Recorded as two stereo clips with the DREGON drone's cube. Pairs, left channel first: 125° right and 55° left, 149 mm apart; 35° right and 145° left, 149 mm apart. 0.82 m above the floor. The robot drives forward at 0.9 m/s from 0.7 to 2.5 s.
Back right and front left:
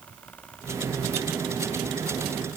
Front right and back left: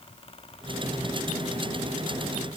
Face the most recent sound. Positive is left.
No sound to turn to.